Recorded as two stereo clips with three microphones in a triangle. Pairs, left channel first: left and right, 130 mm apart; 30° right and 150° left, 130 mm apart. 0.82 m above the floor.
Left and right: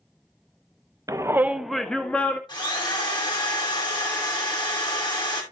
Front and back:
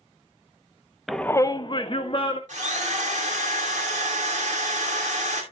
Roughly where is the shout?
Behind right.